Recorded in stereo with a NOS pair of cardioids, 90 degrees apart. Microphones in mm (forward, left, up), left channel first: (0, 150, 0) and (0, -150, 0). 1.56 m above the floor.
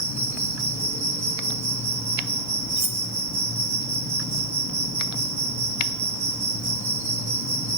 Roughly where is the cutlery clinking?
Ahead right.